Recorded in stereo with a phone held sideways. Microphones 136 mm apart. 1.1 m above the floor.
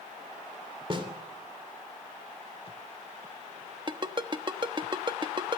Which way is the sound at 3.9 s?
35° right (ahead or behind).